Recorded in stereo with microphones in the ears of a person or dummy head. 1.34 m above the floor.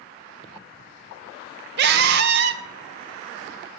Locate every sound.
1.8 s a scream: 60° right (ahead or behind), 0.8 m